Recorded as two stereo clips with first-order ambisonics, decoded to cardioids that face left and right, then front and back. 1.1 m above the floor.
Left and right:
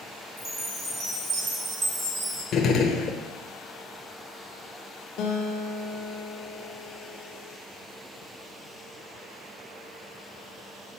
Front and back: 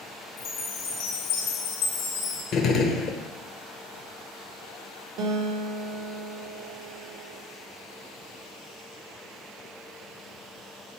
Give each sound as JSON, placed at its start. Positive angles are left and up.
{"t": 0.4, "sound": "a chime", "azimuth_deg": -35, "distance_m": 1.3}
{"t": 2.5, "sound": "a gunshot", "azimuth_deg": 45, "distance_m": 0.7}
{"t": 5.2, "sound": "a guitar", "azimuth_deg": 135, "distance_m": 0.8}